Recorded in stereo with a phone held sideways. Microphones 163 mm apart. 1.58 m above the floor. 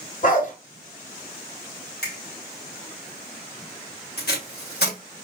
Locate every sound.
0.2 s a dog barking: 55° left (ahead or behind), 2 m
2.0 s a finger snap: 85° left, 2.5 m
4.2 s tape being pulled: 80° left, 3 m